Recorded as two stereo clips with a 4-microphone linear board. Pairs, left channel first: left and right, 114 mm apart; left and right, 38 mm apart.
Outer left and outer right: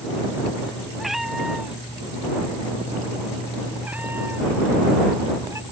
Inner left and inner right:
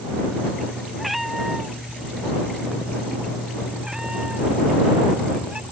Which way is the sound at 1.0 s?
Centre (ahead or behind).